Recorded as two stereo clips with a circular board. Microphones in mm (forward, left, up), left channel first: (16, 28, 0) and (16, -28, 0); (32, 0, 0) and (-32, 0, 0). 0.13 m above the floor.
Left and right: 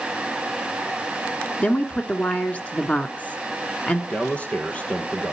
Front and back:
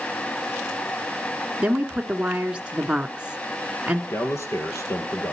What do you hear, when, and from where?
1.6 s a woman speaking: 125° left, 1.4 m
4.1 s a man speaking: 25° left, 2.5 m